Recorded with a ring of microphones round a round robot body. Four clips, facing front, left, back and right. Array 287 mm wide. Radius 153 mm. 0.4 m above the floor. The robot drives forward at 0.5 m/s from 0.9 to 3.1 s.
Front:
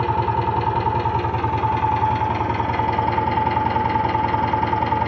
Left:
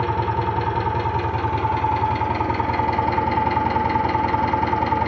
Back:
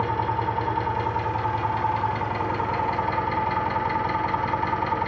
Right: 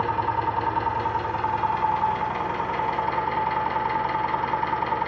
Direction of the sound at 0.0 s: 30° left.